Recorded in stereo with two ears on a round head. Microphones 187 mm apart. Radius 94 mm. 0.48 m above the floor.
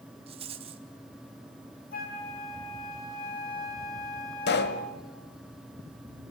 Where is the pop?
55° left (ahead or behind), 1.8 m.